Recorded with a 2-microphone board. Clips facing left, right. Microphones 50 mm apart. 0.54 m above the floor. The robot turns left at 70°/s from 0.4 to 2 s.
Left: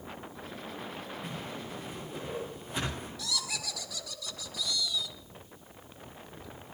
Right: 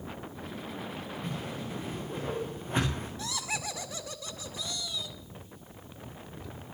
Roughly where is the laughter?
Right.